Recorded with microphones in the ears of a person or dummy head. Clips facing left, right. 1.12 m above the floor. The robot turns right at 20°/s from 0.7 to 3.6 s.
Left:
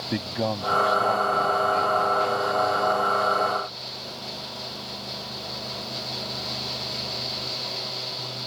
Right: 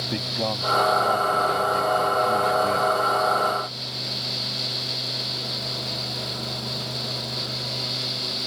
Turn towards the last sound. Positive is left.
turn(degrees=-125)